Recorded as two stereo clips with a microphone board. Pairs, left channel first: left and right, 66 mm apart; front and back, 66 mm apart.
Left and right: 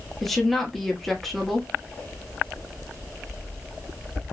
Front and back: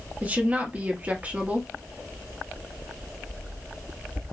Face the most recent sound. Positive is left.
turn(degrees=175)